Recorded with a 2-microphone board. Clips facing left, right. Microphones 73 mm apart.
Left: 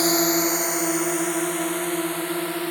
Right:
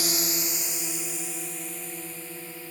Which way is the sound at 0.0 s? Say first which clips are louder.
Left 11 dB; 45° left (ahead or behind).